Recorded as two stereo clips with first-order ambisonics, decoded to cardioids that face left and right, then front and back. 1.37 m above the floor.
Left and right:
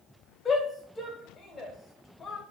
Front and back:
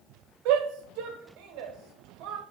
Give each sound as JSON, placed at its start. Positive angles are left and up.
{"t": 0.5, "sound": "a shout", "azimuth_deg": 160, "distance_m": 0.8}